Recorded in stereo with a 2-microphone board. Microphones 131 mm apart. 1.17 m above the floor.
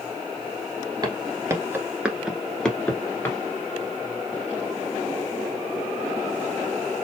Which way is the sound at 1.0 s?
30° right (ahead or behind).